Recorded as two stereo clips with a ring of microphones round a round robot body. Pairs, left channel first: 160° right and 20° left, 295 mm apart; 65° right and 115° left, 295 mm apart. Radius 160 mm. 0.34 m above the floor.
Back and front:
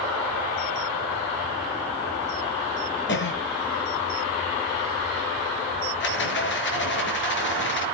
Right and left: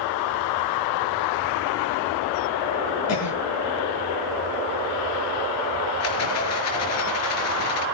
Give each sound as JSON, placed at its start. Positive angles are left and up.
{"t": 3.1, "sound": "a cough", "azimuth_deg": -105, "distance_m": 7.5}
{"t": 6.0, "sound": "a rattle", "azimuth_deg": -105, "distance_m": 4.5}